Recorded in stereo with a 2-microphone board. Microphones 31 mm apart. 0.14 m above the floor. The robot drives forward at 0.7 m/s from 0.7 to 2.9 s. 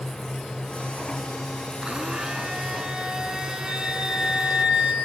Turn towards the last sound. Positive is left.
turn(degrees=-30)  # may be behind; listen again after turning